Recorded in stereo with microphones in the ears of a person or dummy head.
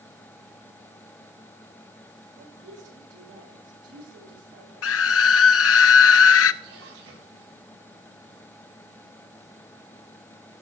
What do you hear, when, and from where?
2.4 s a woman speaking: 65° right (ahead or behind), 5.5 m; by 5.5 s 70° right (ahead or behind), 7 m
4.8 s a scream: 75° left (ahead or behind), 0.7 m
6.6 s a splash: 75° right (ahead or behind), 8 m